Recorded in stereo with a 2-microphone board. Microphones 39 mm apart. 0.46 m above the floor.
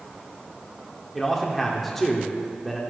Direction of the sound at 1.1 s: Centre (ahead or behind).